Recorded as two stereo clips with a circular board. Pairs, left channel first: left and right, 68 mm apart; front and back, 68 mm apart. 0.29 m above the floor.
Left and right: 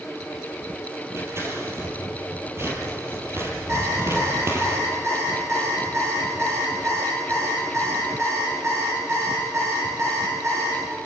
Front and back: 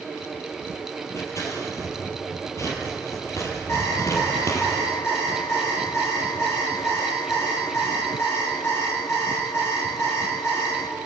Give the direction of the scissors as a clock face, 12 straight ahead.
1 o'clock.